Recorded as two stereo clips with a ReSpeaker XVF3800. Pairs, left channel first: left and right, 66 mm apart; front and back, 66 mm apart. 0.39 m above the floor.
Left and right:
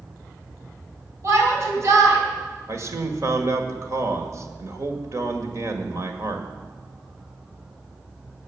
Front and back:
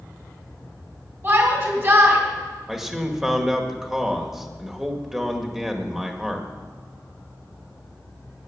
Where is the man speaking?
100° right, 1.8 m.